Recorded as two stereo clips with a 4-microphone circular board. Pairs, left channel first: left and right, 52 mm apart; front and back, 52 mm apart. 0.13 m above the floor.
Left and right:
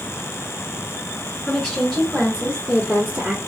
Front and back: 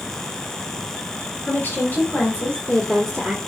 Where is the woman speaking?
5° left, 2 m; by 3.4 s 75° right, 2 m.